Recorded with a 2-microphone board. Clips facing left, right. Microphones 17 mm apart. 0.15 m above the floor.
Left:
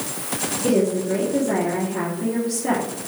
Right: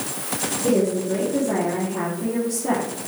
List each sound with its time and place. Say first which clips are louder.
0.6 s a woman speaking: left 1 dB; 55° left (ahead or behind), 2.5 m